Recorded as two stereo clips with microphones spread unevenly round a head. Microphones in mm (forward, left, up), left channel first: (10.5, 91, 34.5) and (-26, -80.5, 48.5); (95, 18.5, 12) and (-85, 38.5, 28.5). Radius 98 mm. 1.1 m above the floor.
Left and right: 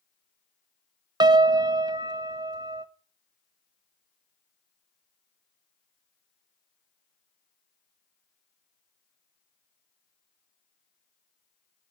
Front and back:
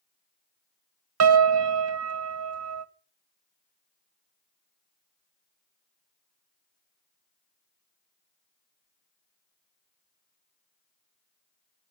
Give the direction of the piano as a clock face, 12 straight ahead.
6 o'clock.